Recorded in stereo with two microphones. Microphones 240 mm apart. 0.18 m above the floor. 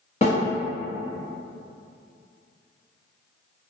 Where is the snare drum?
30° left (ahead or behind), 1.2 m.